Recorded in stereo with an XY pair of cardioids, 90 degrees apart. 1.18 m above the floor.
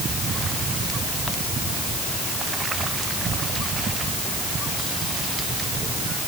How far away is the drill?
I don't hear a drill.